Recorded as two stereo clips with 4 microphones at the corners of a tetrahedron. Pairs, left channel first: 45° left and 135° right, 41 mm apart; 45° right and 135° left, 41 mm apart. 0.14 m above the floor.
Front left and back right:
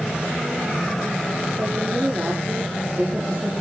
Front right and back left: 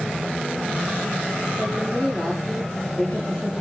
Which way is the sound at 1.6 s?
115° right.